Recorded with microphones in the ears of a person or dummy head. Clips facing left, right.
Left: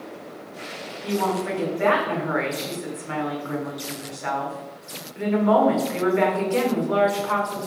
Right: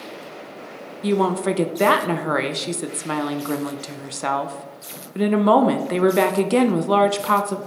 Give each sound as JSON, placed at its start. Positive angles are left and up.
{"t": 1.0, "sound": "a woman speaking", "side_deg": -55, "distance_m": 0.6}